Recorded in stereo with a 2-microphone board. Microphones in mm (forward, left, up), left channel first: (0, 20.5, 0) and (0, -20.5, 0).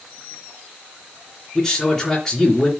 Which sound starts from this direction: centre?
A man speaking, at 1.6 s.